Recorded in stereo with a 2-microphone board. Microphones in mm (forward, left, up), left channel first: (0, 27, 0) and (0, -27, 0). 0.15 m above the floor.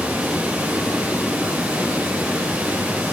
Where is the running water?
30° right (ahead or behind), 9 m.